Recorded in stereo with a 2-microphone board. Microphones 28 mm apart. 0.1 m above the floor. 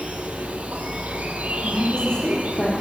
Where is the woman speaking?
40° left (ahead or behind), 3 m.